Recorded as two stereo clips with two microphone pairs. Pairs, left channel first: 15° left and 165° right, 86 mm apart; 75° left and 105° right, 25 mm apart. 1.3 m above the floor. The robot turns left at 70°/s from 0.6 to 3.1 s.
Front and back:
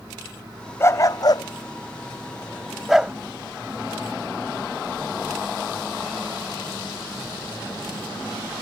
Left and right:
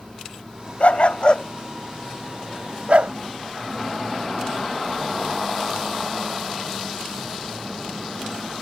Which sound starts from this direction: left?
A dog barking, at 0.8 s.